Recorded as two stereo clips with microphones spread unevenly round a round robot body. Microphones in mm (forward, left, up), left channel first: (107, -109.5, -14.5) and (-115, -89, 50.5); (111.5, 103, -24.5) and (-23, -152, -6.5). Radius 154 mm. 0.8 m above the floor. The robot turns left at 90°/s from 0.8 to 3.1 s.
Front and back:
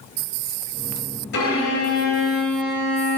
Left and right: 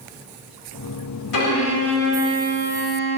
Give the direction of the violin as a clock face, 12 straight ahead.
11 o'clock.